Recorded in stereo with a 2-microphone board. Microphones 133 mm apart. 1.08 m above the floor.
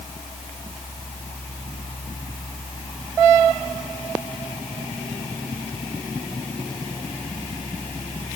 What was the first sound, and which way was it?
Only background noise.